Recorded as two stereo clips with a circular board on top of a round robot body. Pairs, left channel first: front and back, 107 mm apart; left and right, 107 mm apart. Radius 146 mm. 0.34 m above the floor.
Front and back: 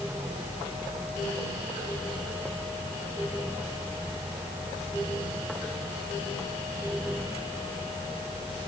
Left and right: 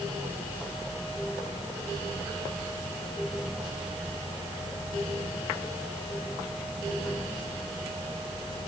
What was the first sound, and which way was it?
Only background noise.